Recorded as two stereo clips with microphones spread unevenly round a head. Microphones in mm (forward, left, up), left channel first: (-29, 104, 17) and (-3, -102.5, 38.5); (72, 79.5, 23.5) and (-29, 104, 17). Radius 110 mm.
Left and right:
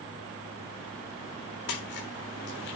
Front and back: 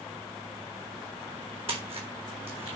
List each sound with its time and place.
1.7 s a splash: 135° left, 3.5 m